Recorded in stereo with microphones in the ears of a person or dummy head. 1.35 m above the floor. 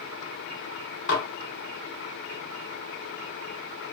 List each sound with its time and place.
1.1 s dishes clattering: 50° left (ahead or behind), 0.7 m